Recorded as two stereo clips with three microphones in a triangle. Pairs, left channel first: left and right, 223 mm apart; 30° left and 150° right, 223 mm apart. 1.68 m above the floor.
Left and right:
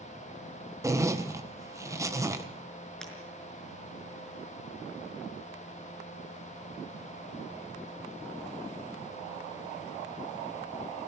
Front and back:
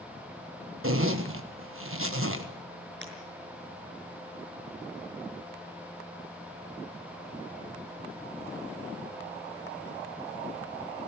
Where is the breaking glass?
175° left, 5.5 m.